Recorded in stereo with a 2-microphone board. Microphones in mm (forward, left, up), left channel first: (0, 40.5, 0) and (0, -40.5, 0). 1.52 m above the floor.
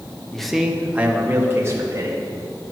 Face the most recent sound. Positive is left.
turn(degrees=-40)  # may be behind; listen again after turning